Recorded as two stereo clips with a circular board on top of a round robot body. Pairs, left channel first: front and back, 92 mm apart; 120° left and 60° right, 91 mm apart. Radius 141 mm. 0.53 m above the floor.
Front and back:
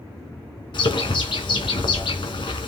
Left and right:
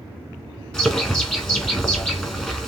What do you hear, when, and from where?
0.7 s a bird: 40° left, 1.3 m